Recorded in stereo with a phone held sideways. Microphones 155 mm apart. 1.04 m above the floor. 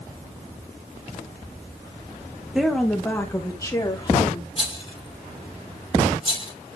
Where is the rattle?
35° left (ahead or behind), 1.2 m.